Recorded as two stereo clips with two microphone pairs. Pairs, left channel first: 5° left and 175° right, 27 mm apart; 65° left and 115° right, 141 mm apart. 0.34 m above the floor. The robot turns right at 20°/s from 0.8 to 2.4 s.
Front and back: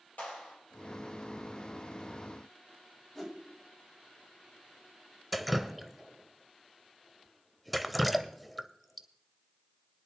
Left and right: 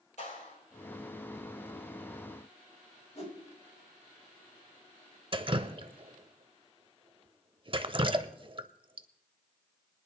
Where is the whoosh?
80° left, 2.5 m.